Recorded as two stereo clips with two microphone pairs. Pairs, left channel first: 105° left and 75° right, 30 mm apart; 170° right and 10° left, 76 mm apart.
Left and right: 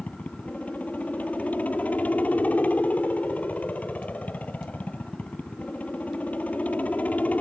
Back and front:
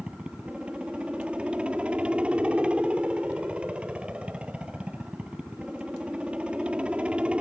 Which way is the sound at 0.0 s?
85° left.